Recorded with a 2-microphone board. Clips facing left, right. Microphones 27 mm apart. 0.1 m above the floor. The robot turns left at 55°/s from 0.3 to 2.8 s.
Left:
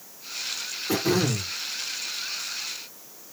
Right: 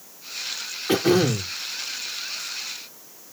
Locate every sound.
0.9 s throat clearing: 80° right, 1.6 m; by 1.5 s 115° right, 1.6 m